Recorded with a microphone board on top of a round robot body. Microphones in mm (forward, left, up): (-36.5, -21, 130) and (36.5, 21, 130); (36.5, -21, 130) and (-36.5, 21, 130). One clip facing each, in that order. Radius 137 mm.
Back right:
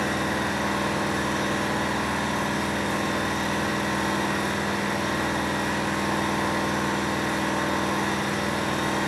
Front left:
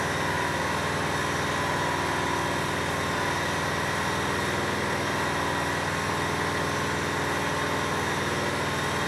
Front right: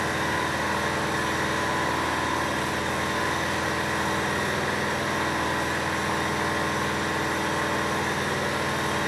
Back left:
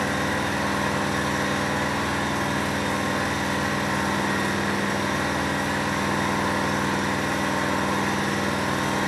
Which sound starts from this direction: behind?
An engine running, at 0.0 s.